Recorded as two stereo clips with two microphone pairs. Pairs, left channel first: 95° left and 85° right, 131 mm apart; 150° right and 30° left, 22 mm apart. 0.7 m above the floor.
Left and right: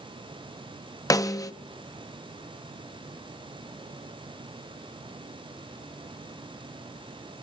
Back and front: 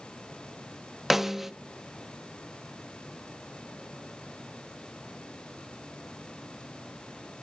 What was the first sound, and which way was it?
A snare drum, 85° left.